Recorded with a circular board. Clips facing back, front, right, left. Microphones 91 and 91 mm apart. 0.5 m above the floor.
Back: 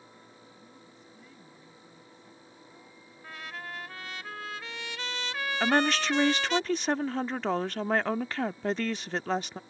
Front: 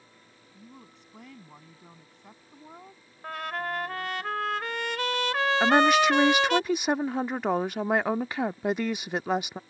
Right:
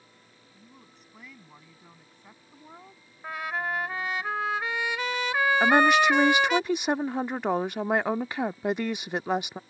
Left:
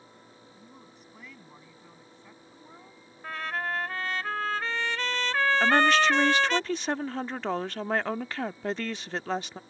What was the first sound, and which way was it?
A woman speaking, 5° left.